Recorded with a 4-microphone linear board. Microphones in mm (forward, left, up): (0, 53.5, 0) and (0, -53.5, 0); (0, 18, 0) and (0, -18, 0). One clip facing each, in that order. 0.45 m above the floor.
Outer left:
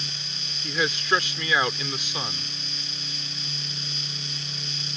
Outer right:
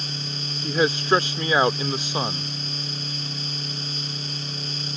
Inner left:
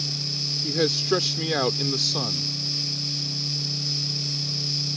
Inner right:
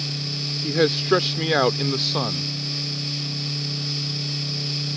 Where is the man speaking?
30° right (ahead or behind).